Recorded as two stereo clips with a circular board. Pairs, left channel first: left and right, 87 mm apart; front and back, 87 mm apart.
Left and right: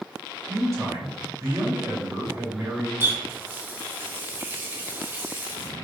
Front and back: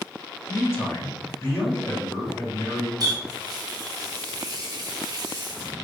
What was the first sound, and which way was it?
A man speaking, 50° right.